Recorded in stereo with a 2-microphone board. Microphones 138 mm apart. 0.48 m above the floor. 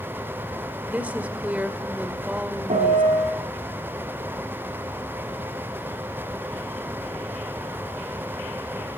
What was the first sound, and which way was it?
A woman speaking, 10° right (ahead or behind).